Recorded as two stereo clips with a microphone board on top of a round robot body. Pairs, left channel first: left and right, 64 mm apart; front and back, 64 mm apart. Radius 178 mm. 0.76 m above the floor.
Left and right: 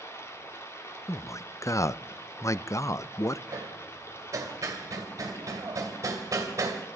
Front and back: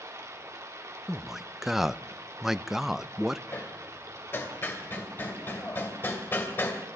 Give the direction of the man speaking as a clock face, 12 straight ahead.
9 o'clock.